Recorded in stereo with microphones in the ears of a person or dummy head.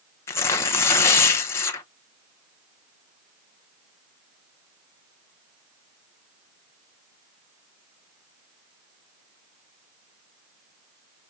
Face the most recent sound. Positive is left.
turn(degrees=15)  # may be behind; listen again after turning